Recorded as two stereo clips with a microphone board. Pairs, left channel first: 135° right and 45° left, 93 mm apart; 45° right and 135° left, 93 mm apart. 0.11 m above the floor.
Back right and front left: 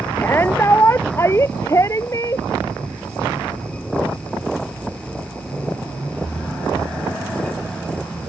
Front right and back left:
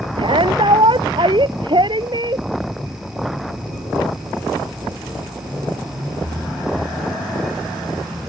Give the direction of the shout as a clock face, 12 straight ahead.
7 o'clock.